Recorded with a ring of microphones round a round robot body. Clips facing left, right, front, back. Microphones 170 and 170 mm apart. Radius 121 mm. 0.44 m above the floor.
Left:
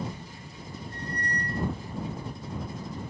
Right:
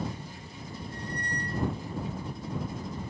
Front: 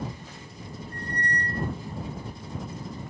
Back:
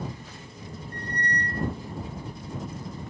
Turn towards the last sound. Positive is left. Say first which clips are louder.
# left 2 dB, even
turn(degrees=60)